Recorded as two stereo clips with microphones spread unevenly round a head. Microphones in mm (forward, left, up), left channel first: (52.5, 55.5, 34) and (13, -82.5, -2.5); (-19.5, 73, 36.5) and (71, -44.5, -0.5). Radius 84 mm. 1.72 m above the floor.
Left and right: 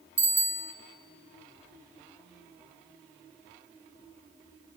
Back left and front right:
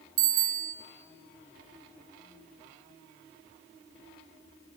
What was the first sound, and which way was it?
A bicycle bell, 25° right.